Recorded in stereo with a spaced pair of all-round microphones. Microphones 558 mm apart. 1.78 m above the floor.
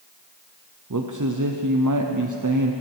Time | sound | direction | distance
0.9 | a man speaking | 35° right (ahead or behind) | 0.8 m